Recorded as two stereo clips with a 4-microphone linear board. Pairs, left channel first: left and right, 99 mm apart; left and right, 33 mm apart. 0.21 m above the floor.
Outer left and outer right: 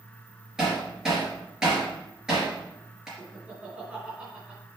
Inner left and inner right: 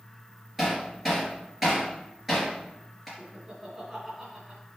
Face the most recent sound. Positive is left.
turn(degrees=-15)  # may be behind; listen again after turning